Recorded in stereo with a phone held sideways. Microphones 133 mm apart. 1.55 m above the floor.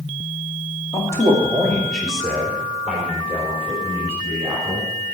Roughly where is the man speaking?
Left.